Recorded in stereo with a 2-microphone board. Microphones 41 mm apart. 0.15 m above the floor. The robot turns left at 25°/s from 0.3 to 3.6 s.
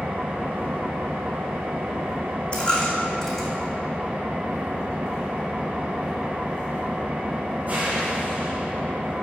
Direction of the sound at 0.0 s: 55° right.